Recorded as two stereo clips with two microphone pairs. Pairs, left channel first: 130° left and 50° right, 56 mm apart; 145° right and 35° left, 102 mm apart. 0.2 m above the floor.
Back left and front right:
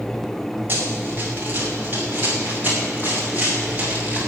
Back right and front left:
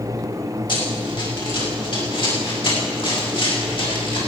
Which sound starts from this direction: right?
Running footsteps, at 0.7 s.